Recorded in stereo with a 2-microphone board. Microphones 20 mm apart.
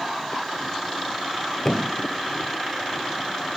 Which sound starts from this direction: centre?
A thud, at 1.6 s.